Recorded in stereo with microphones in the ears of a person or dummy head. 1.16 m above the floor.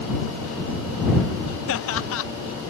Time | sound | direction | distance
1.7 | laughter | 65° left (ahead or behind) | ?